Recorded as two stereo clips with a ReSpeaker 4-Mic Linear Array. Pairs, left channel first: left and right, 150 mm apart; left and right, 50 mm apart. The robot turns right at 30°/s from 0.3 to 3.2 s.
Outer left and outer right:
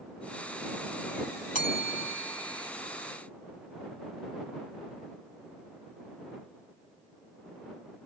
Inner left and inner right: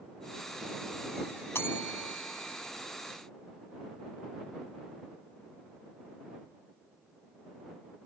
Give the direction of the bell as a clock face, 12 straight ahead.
8 o'clock.